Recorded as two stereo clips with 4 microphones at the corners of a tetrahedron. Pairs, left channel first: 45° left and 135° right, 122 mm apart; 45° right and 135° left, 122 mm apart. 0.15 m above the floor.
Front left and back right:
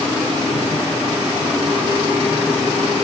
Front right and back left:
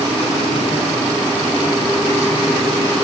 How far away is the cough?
No cough in this recording.